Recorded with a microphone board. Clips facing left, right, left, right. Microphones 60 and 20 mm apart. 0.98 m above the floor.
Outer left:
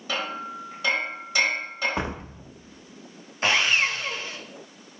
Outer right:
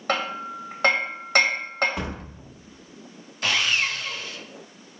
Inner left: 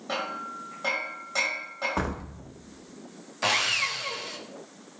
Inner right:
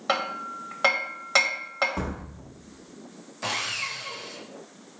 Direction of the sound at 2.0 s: 30° left (ahead or behind).